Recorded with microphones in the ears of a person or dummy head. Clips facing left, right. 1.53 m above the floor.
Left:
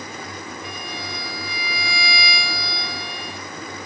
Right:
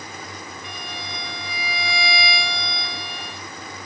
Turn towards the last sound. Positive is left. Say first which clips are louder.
# left 3 dB
turn(degrees=45)  # may be behind; listen again after turning